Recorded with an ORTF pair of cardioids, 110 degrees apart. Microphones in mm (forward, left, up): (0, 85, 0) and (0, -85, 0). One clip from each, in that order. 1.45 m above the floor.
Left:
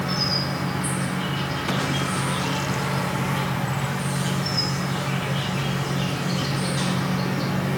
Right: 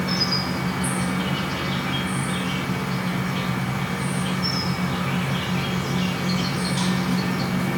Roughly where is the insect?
Ahead.